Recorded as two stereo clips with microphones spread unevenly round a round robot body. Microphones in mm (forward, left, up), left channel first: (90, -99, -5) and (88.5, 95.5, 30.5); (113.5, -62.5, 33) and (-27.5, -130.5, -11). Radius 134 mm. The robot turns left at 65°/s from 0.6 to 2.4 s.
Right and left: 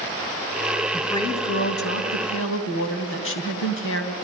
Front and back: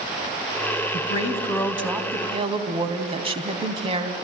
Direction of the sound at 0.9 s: 5° right.